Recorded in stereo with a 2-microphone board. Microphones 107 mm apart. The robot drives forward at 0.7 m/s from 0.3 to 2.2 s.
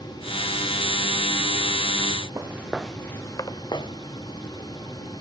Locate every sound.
2.4 s footsteps: 25° right (ahead or behind), 1.3 m; by 5.2 s 70° left (ahead or behind), 3 m